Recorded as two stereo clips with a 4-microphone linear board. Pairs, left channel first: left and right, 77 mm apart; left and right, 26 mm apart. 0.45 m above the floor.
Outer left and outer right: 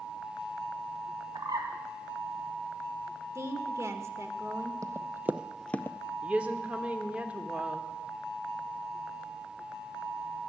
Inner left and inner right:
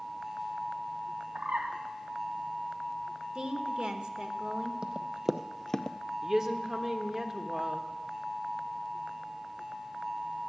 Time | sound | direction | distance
1.4 | a bird | 65° right (ahead or behind) | 2.5 m
3.4 | a woman speaking | 40° right (ahead or behind) | 1.2 m
4.8 | running footsteps | 45° right (ahead or behind) | 0.8 m
6.2 | a woman speaking | 15° right (ahead or behind) | 1.1 m